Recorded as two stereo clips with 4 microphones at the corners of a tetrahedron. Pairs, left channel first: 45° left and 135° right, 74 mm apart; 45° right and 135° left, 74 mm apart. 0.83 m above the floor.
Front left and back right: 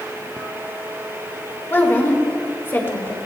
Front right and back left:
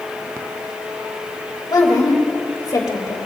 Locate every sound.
1.7 s a woman speaking: 15° right, 3 m